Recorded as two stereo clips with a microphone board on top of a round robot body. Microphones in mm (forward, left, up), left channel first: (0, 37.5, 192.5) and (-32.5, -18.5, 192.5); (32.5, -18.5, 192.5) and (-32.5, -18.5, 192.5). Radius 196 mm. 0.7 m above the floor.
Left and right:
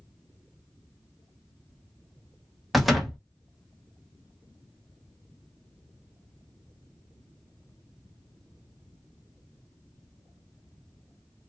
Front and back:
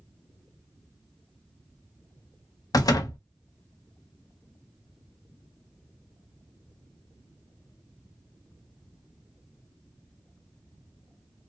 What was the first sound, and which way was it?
A door slam, 30° right.